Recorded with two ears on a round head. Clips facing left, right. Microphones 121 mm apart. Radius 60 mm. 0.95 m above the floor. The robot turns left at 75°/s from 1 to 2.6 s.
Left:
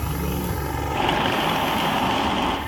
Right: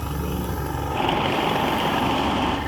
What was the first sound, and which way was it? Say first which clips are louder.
A helicopter: left 1 dB; 5° left.